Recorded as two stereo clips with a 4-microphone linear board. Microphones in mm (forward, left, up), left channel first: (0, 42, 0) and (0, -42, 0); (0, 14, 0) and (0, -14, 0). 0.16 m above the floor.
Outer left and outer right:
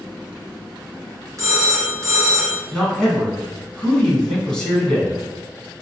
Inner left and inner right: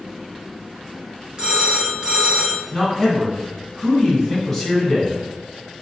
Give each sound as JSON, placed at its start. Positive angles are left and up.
{"t": 1.4, "sound": "a phone ringing", "side_deg": -35, "distance_m": 1.6}
{"t": 2.7, "sound": "a man speaking", "side_deg": 5, "distance_m": 1.5}